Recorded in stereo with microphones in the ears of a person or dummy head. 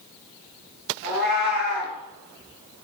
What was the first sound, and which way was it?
A cat meowing, 40° right (ahead or behind).